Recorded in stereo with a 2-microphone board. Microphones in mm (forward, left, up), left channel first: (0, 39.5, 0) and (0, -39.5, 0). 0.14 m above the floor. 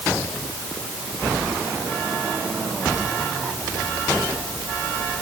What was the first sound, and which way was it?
Only background noise.